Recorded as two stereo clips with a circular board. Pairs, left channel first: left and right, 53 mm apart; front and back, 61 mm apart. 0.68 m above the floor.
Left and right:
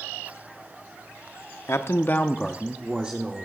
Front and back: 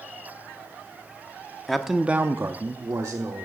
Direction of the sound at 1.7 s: 85° left.